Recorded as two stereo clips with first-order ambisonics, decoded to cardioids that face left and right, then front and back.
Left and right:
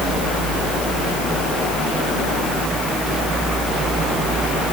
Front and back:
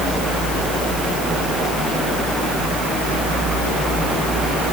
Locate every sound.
Only background noise.